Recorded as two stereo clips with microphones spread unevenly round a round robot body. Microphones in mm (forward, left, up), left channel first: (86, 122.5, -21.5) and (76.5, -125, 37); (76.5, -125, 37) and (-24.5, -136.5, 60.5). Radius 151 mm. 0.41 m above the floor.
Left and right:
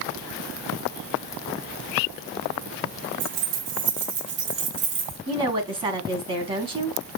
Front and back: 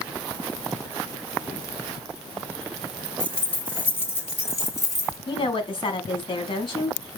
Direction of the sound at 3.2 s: 75° right.